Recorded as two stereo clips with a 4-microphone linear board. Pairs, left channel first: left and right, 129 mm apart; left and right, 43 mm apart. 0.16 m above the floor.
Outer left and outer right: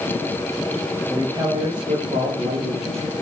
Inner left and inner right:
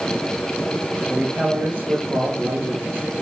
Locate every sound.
1.1 s a man speaking: 30° right (ahead or behind), 4 m; by 3.2 s 50° right (ahead or behind), 5 m